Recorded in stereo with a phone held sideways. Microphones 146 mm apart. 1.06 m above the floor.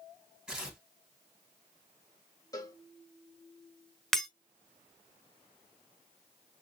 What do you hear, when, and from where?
0.5 s tearing paper: 5° right (ahead or behind), 1.9 m
2.5 s a cowbell: 25° left (ahead or behind), 1.4 m
4.1 s breaking glass: centre (ahead or behind), 1.1 m